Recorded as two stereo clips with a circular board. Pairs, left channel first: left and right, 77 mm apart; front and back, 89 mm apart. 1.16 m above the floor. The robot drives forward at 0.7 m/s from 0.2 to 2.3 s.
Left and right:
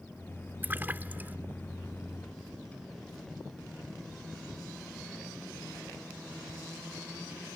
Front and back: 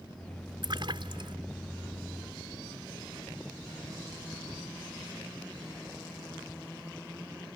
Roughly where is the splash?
Behind right.